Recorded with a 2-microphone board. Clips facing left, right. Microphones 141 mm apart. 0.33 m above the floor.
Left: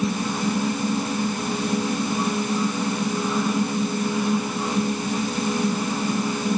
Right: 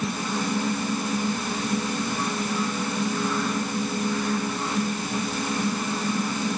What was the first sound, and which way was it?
Only background noise.